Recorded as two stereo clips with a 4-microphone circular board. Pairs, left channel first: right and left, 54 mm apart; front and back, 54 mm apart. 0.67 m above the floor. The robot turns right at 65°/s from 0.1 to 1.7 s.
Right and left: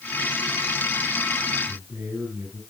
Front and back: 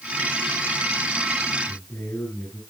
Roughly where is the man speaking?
Ahead left.